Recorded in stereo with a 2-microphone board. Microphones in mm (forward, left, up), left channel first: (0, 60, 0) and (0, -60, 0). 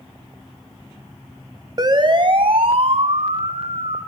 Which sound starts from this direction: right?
A siren, at 1.8 s.